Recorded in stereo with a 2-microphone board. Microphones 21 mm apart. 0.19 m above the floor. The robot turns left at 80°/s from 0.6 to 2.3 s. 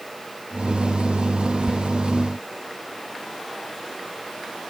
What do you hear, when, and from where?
1.7 s whispering: 20° right (ahead or behind), 3.5 m; by 1.8 s 10° right (ahead or behind), 3.5 m